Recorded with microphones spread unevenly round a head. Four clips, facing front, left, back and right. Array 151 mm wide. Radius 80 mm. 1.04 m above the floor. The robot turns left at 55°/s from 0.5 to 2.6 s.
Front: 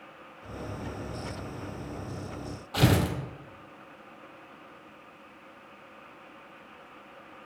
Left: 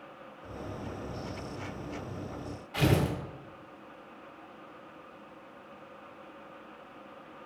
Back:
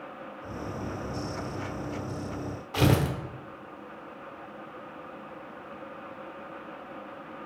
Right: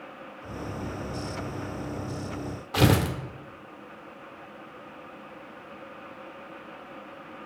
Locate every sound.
2.7 s tearing paper: 95° right, 0.9 m